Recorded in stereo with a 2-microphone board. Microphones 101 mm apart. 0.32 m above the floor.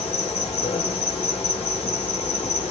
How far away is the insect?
About 2 m.